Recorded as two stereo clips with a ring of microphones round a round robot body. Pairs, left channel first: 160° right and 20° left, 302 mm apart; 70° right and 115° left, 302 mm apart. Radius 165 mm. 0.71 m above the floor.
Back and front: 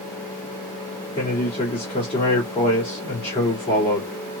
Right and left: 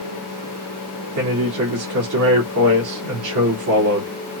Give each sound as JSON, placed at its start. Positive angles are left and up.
{"t": 1.1, "sound": "a man speaking", "azimuth_deg": 135, "distance_m": 2.0}